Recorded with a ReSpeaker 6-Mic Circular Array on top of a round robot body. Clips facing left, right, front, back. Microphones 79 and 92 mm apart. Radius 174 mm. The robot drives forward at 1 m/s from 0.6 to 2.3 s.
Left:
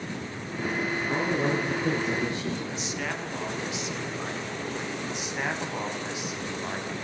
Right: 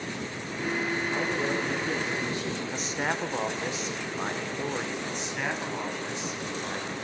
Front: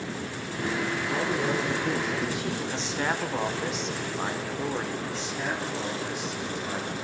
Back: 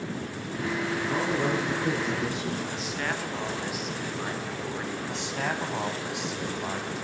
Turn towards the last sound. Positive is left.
turn(degrees=170)